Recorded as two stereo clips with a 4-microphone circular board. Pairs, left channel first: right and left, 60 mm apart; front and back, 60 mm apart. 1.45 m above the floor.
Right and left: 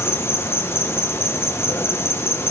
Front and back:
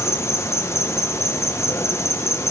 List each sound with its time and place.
0.0 s an insect: 45° right, 1.2 m